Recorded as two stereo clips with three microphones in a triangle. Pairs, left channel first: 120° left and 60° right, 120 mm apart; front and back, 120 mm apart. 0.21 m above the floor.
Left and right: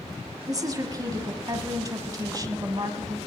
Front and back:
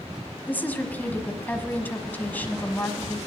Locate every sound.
0.5 s a woman speaking: 60° right, 1.2 m